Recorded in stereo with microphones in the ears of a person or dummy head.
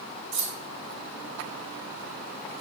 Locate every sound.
0.3 s keys jangling: 45° right (ahead or behind), 3.5 m